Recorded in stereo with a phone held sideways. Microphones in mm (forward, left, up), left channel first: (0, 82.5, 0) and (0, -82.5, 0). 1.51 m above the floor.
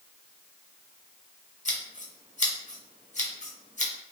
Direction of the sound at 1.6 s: 45° left (ahead or behind).